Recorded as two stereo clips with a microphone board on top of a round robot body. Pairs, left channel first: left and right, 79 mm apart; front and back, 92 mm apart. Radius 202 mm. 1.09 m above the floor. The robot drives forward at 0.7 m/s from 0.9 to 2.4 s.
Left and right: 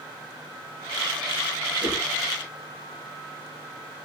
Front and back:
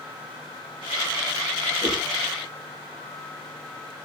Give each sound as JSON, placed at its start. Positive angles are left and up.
{"t": 1.8, "sound": "a whoosh", "azimuth_deg": 60, "distance_m": 6.5}